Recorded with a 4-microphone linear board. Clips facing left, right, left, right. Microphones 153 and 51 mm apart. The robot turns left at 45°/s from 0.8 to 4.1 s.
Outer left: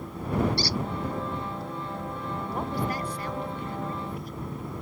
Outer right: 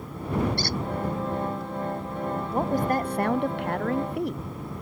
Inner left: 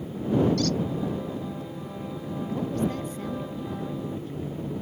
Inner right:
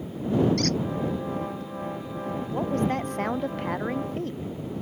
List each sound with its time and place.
0.6 s a squeak: 55° right (ahead or behind)
2.5 s a woman speaking: 35° right; by 4.5 s 105° right